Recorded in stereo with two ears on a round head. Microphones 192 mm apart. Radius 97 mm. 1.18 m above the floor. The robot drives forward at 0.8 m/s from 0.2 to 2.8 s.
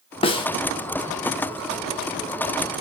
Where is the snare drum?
25° left (ahead or behind), 1.3 m; by 0.5 s 20° left (ahead or behind), 1.5 m.